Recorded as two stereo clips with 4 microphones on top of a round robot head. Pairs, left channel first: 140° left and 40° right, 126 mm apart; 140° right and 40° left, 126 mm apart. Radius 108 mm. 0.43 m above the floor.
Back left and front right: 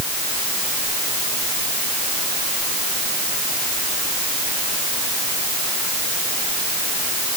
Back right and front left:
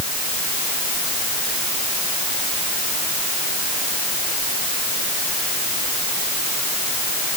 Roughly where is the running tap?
No running tap in this recording.